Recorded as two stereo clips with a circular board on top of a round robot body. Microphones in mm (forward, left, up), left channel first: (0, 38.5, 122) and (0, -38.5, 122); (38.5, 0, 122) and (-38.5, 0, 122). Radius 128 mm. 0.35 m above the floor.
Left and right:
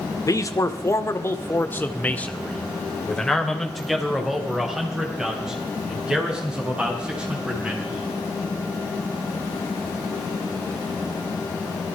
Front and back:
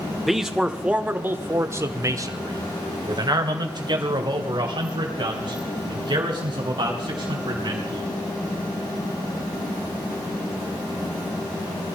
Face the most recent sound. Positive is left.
turn(degrees=-165)